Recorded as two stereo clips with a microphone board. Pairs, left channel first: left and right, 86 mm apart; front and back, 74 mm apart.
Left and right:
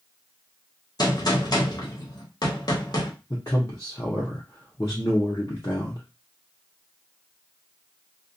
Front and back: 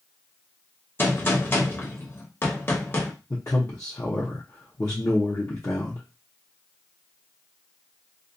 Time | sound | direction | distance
1.0 | a gunshot | 55° left | 0.7 m
3.3 | a man speaking | 40° left | 0.6 m